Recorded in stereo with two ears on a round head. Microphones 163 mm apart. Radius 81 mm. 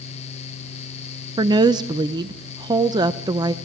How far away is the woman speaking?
About 0.5 m.